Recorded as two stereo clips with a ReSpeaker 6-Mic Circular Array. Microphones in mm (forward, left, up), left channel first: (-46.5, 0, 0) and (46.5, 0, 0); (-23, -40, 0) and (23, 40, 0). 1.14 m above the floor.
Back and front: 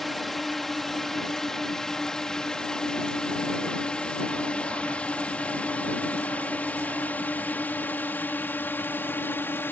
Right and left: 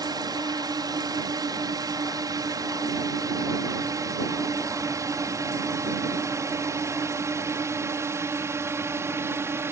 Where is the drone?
90° left; by 9.7 s 115° left.